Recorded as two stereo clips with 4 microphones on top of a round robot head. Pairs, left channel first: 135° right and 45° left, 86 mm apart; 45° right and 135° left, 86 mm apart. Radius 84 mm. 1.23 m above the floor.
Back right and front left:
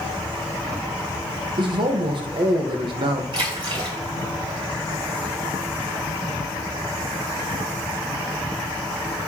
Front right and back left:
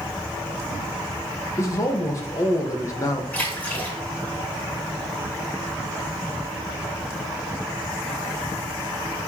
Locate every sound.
1.6 s a man speaking: 15° left, 1.4 m
3.3 s a splash: 30° left, 4 m